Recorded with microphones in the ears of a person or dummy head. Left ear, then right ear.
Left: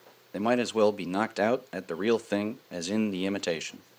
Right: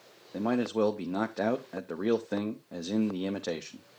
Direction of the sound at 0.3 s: 65° left (ahead or behind).